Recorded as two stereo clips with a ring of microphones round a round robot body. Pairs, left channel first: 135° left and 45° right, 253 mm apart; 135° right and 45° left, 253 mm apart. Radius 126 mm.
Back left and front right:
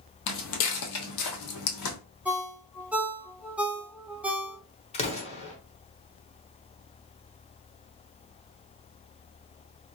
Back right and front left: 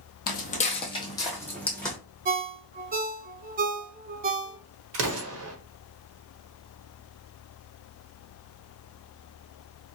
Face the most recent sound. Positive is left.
turn(degrees=75)